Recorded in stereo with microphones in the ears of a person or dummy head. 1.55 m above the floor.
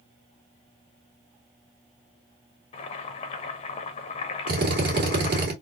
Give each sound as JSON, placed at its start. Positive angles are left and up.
{"t": 2.7, "sound": "boiling", "side_deg": 30, "distance_m": 0.9}
{"t": 4.5, "sound": "a drill", "side_deg": -50, "distance_m": 1.9}